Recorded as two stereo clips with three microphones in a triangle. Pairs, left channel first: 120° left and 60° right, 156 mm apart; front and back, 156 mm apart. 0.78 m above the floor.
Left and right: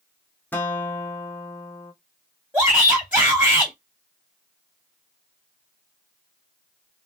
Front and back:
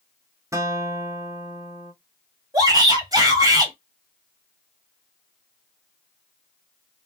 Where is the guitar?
175° left, 0.8 m.